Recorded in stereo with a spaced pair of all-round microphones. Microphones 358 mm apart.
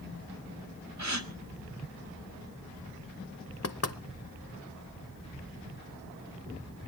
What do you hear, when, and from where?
1.0 s a gasp: 55° right (ahead or behind), 1.5 m
3.6 s knocking: 45° left (ahead or behind), 0.8 m